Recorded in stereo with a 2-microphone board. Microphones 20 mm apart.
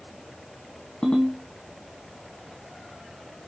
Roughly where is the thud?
No thud in this recording.